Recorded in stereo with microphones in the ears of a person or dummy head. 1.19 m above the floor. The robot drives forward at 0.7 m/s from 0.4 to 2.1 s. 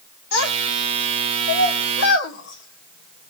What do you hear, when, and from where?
0.3 s a child speaking: 85° left, 2 m; by 3.3 s 60° left (ahead or behind), 2.5 m